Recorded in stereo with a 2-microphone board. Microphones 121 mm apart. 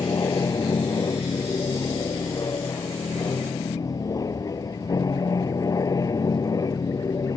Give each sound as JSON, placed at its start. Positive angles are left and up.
{"t": 0.0, "sound": "an aircraft", "side_deg": 30}